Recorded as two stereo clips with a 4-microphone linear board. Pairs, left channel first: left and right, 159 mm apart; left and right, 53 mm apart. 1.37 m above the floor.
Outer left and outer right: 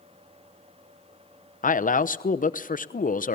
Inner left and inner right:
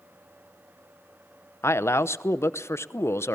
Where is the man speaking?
55° left (ahead or behind), 0.9 m.